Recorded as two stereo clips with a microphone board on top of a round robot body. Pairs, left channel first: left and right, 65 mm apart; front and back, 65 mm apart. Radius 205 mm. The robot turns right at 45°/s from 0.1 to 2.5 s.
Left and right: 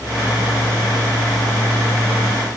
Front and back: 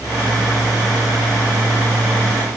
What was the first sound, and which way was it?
Only background noise.